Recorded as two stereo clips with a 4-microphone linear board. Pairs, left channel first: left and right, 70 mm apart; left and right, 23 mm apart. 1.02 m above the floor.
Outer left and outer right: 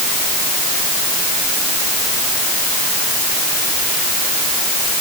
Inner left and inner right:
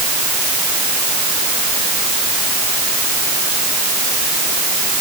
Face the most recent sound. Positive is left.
No sound to turn to.